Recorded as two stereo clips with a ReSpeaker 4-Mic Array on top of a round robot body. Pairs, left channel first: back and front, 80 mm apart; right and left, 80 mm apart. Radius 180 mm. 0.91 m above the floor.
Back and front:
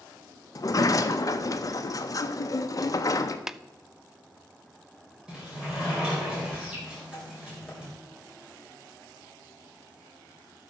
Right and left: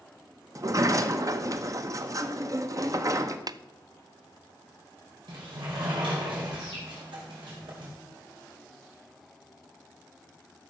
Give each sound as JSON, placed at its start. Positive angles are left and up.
{"t": 0.6, "sound": "a sliding door", "azimuth_deg": 135, "distance_m": 0.8}
{"t": 3.5, "sound": "tapping", "azimuth_deg": 85, "distance_m": 0.5}
{"t": 5.3, "sound": "a sliding door", "azimuth_deg": 80, "distance_m": 4.0}